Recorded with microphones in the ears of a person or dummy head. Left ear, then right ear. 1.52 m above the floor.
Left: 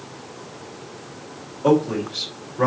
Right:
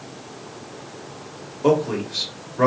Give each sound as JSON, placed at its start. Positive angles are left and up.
{"t": 1.6, "sound": "a man speaking", "side_deg": -75, "distance_m": 1.6}